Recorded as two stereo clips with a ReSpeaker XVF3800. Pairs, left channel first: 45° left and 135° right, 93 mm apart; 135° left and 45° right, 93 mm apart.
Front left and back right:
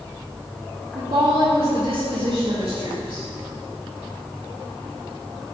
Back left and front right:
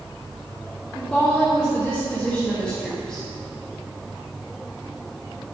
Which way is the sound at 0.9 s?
150° right.